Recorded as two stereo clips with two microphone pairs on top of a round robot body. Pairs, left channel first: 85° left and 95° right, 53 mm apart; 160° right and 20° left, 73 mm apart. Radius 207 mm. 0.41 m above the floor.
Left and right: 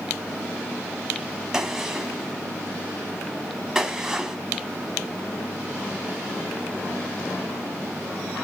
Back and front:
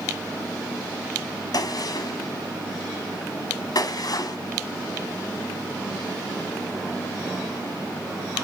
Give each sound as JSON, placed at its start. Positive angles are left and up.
{"t": 1.5, "sound": "a gunshot", "azimuth_deg": -175, "distance_m": 1.5}